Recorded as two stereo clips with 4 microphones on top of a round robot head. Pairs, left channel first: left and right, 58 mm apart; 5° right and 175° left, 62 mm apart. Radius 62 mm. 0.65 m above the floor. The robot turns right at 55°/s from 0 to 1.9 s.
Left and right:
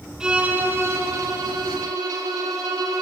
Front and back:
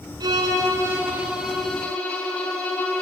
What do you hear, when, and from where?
0.2 s a violin: 170° right, 5 m; by 3.0 s 75° right, 5 m